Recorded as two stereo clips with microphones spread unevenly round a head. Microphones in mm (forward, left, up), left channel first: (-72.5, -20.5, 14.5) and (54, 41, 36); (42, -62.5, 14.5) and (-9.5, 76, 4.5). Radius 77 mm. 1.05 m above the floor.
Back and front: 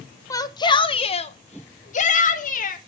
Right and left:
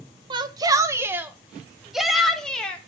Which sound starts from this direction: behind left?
A shout, at 0.3 s.